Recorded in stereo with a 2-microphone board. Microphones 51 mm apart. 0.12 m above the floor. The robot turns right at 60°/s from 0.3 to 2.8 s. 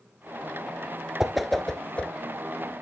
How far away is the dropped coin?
No dropped coin in this recording.